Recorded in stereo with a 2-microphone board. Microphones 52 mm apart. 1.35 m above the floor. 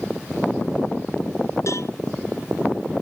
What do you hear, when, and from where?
1.7 s a cowbell: 70° left (ahead or behind)